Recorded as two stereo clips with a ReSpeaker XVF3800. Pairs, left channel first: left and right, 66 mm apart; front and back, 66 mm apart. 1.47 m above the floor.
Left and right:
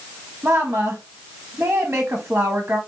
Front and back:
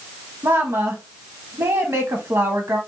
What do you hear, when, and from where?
0.4 s a woman speaking: 150° right, 0.9 m